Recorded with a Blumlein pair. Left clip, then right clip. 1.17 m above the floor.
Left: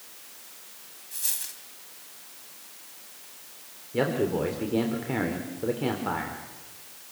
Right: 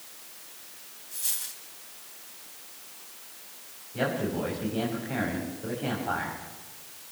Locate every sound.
1.1 s a dropped coin: 10° left, 3 m
3.9 s a man speaking: 35° left, 4 m